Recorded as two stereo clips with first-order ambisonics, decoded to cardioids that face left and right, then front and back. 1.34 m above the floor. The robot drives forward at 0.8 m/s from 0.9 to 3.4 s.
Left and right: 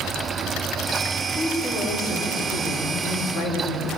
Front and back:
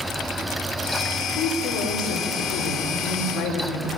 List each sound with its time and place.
1.4 s a woman speaking: 20° left, 4 m; by 4.0 s 35° left, 2.5 m